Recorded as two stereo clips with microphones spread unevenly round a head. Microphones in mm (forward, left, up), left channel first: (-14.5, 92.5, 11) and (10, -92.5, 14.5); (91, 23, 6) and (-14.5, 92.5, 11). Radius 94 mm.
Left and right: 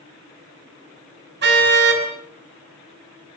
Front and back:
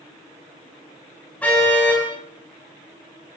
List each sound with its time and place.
1.4 s a car horn: 115° right, 5.5 m